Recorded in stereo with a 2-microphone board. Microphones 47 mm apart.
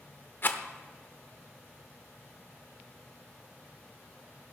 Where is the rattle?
45° left (ahead or behind), 0.8 m.